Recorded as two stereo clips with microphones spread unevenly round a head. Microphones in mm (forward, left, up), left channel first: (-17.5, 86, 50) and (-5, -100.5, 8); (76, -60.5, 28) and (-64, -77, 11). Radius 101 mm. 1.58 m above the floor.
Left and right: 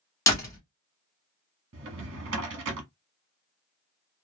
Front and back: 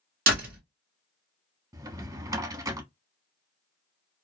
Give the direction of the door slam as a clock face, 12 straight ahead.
7 o'clock.